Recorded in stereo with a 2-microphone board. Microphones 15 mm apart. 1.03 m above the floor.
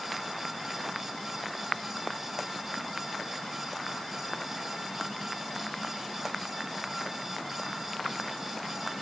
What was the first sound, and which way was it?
Only background noise.